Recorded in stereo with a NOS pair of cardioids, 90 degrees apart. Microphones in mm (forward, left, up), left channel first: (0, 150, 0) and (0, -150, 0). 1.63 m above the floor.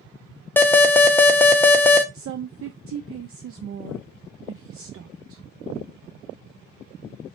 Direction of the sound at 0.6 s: 5° left.